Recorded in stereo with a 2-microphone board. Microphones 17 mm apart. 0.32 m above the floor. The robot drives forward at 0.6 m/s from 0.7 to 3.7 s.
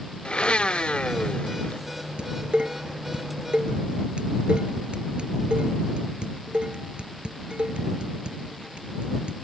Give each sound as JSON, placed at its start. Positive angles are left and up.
{"t": 0.2, "sound": "a blender", "side_deg": 85}
{"t": 2.2, "sound": "dishes clattering", "side_deg": -75}